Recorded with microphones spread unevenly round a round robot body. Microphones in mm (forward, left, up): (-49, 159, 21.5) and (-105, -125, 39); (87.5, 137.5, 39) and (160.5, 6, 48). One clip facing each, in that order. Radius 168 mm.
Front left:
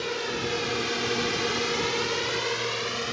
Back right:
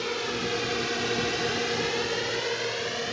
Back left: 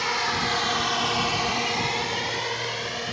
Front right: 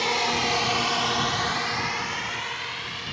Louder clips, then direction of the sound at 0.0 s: Even, front right 2 dB; 15° right.